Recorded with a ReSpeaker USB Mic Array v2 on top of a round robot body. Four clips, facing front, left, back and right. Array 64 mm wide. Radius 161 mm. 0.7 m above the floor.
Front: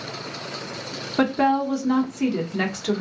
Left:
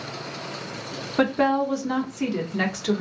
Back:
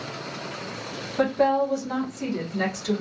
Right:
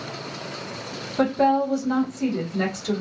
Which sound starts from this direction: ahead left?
A woman speaking, at 1.2 s.